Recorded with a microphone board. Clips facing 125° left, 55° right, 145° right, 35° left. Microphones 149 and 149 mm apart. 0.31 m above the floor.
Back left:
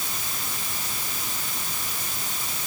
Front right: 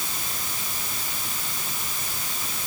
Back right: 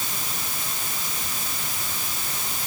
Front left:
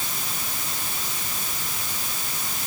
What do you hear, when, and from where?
Only background noise.